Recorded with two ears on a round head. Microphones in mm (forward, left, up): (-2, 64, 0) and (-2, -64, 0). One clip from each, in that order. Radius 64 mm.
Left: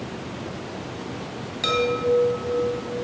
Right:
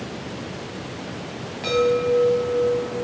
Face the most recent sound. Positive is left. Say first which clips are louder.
# right 2 dB
turn(degrees=55)  # may be behind; listen again after turning